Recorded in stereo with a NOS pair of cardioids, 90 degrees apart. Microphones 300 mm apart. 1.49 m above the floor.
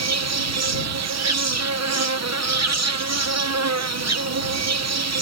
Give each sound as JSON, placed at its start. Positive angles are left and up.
{"t": 0.0, "sound": "an insect", "azimuth_deg": -60}